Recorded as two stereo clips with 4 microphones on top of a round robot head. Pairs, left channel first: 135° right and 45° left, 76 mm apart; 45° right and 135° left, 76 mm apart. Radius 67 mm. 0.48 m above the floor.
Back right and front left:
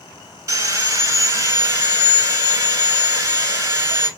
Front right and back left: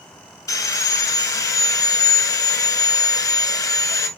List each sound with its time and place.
0.5 s sawing: 5° right, 2.5 m